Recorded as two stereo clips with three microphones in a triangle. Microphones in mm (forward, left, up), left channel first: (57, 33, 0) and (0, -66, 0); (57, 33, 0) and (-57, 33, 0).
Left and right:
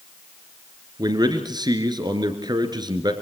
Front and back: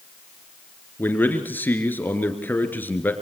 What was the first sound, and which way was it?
A man speaking, 70° right.